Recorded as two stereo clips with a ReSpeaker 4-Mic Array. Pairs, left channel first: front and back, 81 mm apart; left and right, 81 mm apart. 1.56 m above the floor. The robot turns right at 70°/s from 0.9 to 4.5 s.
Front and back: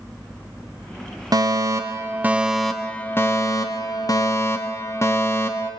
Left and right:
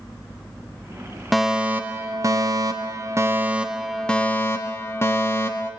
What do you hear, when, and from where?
1.3 s a fire alarm: straight behind, 1.5 m; by 5.7 s 40° left, 1.5 m